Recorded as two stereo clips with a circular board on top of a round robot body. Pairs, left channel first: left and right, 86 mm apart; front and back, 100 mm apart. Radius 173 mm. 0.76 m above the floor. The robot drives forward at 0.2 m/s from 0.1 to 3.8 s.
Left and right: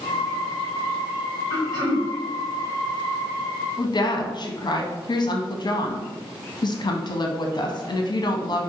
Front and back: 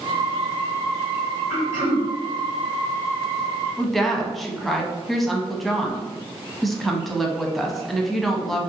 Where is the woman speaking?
90° left, 0.6 m.